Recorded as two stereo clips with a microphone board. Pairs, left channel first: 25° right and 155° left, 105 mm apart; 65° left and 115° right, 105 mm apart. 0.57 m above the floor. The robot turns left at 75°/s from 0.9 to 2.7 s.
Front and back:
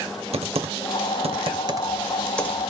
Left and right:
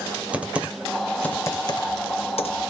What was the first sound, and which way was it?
Typing on a keyboard, 170° left.